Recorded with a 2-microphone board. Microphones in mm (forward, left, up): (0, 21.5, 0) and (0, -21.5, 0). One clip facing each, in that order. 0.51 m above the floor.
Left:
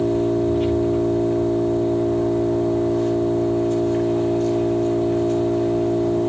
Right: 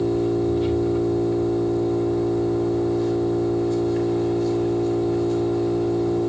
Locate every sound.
0.0 s an engine running: 55° left (ahead or behind), 8.5 m